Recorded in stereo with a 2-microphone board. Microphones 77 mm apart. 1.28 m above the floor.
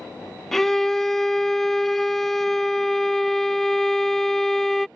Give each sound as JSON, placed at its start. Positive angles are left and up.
{"t": 0.5, "sound": "a violin", "side_deg": 5}